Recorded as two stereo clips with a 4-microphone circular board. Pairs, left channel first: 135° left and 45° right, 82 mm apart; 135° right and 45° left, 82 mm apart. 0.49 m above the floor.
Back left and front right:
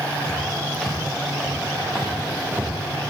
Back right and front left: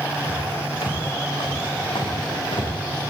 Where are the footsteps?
135° right, 9 m; by 2.7 s 125° right, 8.5 m.